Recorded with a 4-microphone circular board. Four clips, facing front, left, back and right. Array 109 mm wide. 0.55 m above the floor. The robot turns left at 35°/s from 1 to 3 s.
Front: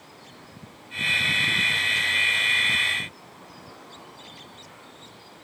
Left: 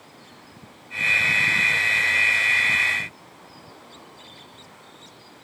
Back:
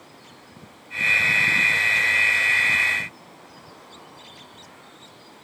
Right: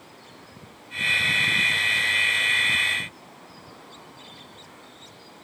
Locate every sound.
Only background noise.